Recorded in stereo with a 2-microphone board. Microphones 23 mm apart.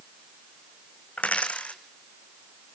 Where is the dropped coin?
85° left, 1.7 m.